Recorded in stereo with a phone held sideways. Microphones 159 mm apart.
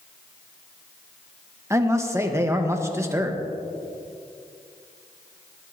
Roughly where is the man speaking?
Centre.